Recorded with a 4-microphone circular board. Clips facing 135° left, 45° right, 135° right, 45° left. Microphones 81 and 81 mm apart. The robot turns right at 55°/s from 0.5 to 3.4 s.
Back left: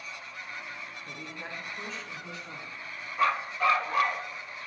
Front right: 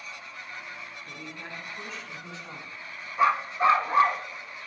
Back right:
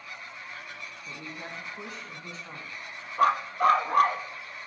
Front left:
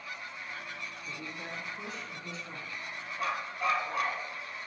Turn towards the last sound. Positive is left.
turn(degrees=-105)